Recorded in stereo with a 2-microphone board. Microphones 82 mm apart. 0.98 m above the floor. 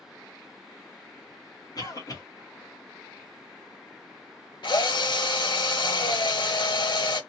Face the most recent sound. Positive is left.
turn(degrees=70)  # may be behind; listen again after turning